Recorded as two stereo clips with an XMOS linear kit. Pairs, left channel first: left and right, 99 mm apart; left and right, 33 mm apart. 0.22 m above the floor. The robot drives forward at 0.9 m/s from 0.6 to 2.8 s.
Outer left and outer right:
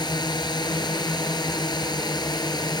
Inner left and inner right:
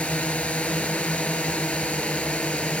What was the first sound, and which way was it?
A drone, 50° left (ahead or behind).